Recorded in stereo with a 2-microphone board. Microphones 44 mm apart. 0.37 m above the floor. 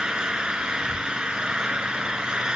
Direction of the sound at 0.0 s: 20° right (ahead or behind).